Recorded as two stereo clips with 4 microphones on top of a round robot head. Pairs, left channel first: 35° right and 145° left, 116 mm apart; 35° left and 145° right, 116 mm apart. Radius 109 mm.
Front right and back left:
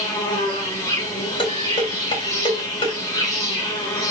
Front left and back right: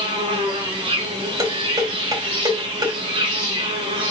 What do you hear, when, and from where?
0.0 s an insect: 95° right, 2.5 m
1.4 s dishes clattering: 85° right, 4 m